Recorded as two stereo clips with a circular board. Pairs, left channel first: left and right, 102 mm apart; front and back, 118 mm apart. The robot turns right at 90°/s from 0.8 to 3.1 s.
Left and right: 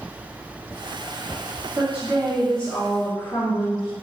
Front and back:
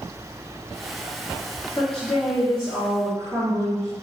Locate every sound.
1.8 s a woman speaking: 50° right, 1.2 m; by 3.9 s 70° left, 1.2 m